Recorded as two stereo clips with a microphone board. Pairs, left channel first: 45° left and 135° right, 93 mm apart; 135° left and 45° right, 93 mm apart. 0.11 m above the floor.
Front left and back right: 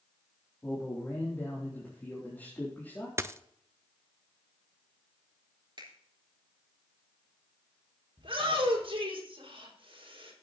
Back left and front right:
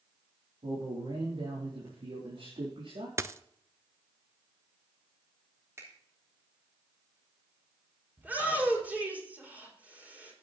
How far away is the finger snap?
About 3.5 m.